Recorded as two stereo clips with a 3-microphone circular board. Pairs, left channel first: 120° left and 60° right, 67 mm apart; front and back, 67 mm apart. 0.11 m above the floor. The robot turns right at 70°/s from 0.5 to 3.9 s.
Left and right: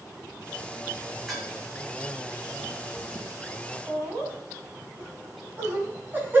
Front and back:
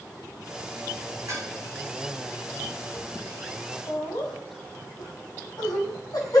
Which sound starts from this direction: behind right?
Dishes clattering, at 1.3 s.